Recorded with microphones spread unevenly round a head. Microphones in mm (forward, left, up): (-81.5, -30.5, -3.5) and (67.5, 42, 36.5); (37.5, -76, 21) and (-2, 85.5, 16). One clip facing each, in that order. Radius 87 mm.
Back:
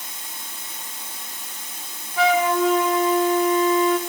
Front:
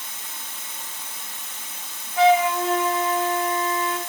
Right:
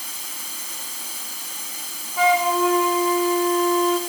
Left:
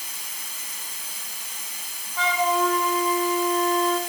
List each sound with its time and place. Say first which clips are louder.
0.0 s running water: back 1 dB, right 3 dB; 90° right, 1.5 m
2.2 s a flute: front 1 dB, right 4 dB; 155° right, 0.9 m